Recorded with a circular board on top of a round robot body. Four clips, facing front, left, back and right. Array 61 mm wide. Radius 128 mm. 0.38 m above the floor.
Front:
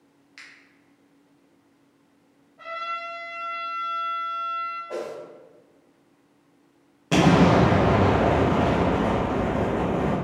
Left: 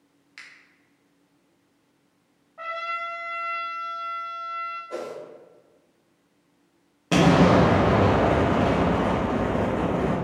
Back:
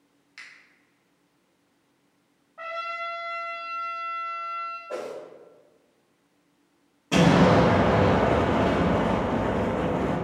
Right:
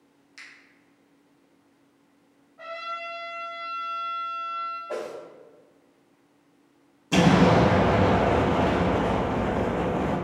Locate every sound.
0.4 s a finger snap: 85° left, 1.1 m
2.6 s a trumpet: 130° left, 0.6 m
4.9 s a whoosh: 85° right, 0.7 m
7.1 s an explosion: 65° left, 1.0 m